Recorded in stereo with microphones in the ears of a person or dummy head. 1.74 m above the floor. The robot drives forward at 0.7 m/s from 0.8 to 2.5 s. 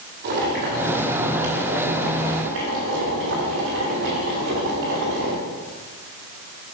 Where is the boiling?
55° right (ahead or behind), 2 m; by 5.4 s 60° right (ahead or behind), 2 m.